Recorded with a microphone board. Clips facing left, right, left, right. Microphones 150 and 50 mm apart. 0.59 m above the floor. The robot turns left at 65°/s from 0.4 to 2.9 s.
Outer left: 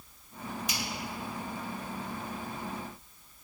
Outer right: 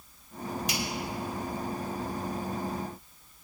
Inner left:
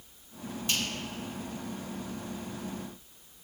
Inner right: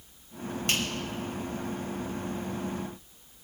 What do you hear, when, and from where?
0.7 s a finger snap: 70° right (ahead or behind), 2.5 m; by 0.8 s 60° right (ahead or behind), 2.5 m